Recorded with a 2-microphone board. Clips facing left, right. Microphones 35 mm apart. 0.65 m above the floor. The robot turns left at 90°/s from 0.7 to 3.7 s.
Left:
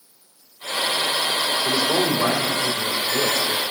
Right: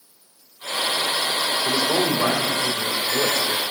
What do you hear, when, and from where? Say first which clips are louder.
1.6 s a man speaking: even; 15° left, 2.5 m; by 3.6 s 165° right, 2.5 m